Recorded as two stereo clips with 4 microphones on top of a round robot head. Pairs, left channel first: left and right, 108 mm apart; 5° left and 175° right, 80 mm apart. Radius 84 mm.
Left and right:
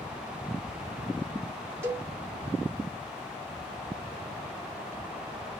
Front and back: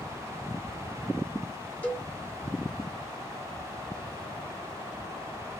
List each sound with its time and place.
1.8 s a cowbell: 45° right, 1.4 m